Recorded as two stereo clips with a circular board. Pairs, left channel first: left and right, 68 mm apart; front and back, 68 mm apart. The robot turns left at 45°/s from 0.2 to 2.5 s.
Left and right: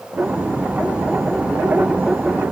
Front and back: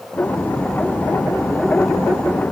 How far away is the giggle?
No giggle in this recording.